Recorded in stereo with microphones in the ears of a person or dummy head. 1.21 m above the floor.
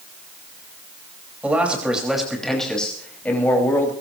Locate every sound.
1.4 s a man speaking: 10° right (ahead or behind), 5 m; by 3.9 s 15° left (ahead or behind), 6 m